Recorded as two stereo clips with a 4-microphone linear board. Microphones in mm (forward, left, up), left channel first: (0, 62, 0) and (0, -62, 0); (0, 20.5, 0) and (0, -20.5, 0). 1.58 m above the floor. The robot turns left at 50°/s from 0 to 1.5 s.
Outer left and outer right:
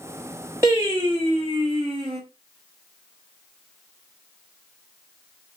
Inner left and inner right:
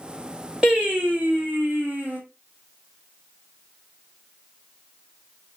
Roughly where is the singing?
Ahead right.